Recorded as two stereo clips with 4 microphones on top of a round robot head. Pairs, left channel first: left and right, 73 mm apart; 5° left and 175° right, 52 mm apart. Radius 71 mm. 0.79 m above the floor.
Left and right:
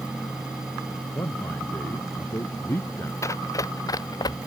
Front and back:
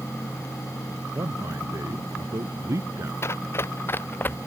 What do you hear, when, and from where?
1.1 s a man speaking: 150° left
3.2 s running footsteps: 40° left; by 4.5 s 60° left